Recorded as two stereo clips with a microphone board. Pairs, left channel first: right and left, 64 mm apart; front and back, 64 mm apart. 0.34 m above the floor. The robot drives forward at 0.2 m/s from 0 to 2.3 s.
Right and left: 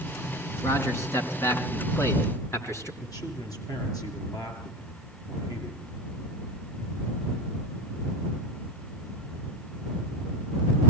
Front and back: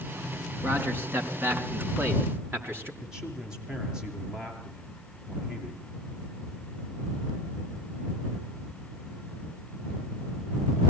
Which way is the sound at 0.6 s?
125° right.